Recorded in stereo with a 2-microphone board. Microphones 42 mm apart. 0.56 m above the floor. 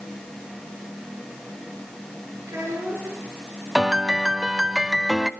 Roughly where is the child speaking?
Right.